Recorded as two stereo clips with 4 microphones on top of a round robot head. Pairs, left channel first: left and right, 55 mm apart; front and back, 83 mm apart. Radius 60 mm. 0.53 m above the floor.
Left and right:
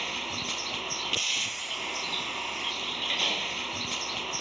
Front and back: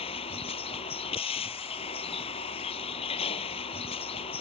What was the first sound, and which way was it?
A vehicle, straight ahead.